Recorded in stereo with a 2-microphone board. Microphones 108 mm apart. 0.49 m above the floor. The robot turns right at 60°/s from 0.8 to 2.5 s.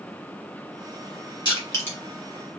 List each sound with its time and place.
1.4 s crushing: 45° left (ahead or behind), 2 m; by 2.0 s 15° left (ahead or behind), 2 m